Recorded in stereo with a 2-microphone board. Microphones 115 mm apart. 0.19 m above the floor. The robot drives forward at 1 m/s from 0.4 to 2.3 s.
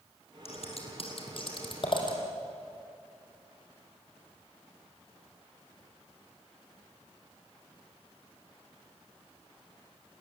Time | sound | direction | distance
0.5 | scissors | 65° left (ahead or behind) | 3.5 m